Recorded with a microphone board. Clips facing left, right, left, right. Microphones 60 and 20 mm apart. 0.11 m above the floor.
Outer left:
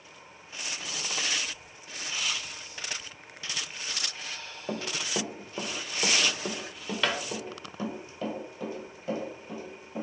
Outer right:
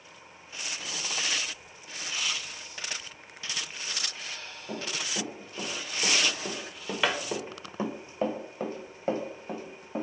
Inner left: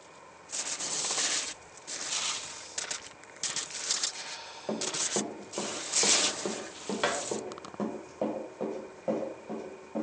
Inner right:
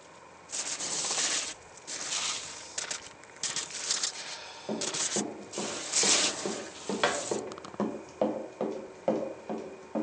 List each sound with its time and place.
4.7 s running footsteps: 50° left (ahead or behind), 1.4 m; by 10.1 s 60° right (ahead or behind), 2 m